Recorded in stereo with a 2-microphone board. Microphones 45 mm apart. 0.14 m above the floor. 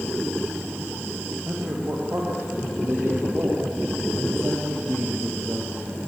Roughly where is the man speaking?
Right.